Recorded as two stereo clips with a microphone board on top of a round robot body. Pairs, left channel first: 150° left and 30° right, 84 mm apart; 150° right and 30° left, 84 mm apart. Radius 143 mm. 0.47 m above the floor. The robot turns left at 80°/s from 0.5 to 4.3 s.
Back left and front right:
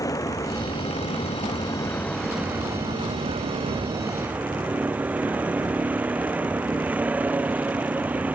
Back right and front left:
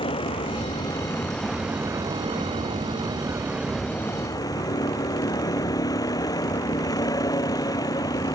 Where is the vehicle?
160° right; by 8.3 s 105° right.